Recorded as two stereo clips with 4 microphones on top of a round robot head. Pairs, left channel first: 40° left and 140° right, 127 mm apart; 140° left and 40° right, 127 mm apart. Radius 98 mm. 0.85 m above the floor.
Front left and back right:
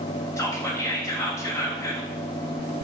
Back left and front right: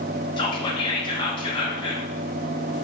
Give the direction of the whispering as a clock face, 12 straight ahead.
9 o'clock.